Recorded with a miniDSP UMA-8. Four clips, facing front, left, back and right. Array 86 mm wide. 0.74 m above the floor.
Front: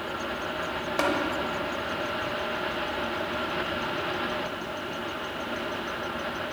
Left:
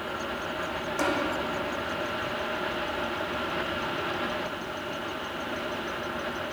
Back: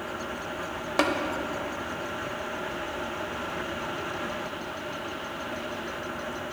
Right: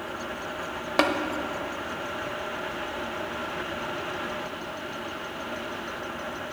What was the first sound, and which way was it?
Tapping, 105° right.